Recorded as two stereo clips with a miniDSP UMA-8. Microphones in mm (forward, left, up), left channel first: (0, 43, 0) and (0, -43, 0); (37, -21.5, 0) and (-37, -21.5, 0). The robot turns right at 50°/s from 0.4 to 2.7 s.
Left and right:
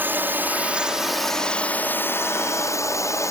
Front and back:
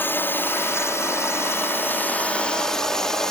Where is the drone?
35° right; by 3.3 s 80° left.